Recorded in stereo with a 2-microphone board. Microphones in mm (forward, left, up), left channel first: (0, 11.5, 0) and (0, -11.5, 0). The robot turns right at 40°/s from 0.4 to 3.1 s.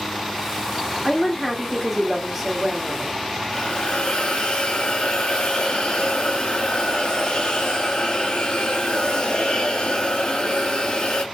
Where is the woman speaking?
160° left, 1.3 m; by 3.2 s 120° right, 1.3 m.